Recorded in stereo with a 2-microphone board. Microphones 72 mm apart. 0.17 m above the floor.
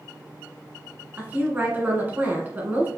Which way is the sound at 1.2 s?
25° right (ahead or behind).